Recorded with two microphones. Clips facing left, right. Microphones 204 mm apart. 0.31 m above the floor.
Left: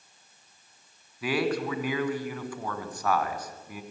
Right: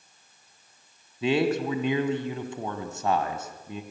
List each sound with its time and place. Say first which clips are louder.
1.2 s a man speaking: right 4 dB; 25° right (ahead or behind), 2.5 m